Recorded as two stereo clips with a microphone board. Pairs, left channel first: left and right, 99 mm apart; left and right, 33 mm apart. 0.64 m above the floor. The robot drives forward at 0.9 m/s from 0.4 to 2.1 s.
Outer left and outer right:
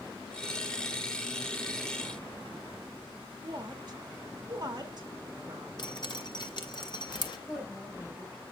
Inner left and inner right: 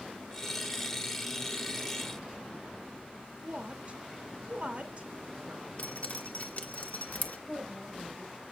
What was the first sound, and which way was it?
A woman speaking, 45° right (ahead or behind).